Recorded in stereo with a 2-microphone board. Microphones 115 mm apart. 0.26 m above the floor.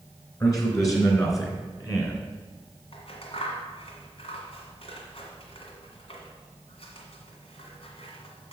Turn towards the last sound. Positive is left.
turn(degrees=60)  # may be behind; listen again after turning